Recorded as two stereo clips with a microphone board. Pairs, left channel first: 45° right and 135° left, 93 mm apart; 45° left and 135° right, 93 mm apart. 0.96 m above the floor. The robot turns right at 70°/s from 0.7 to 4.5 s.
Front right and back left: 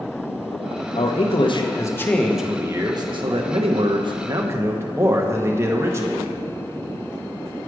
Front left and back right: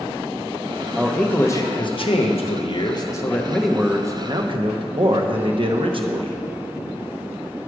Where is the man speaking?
50° right, 0.8 m; by 6.4 s 165° right, 0.8 m.